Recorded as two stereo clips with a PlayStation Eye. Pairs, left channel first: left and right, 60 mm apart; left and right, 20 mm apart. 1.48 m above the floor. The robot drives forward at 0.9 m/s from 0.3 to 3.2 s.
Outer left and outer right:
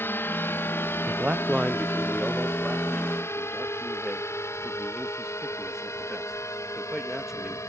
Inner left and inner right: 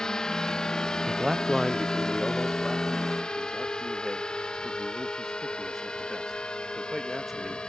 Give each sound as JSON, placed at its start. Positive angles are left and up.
{"t": 0.0, "sound": "a drone", "side_deg": 40}
{"t": 1.1, "sound": "a man speaking", "side_deg": -30}